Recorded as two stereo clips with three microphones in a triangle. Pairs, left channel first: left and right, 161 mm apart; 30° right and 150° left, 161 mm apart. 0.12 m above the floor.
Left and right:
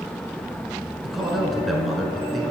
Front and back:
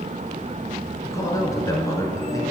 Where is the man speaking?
Straight ahead, 1.1 m.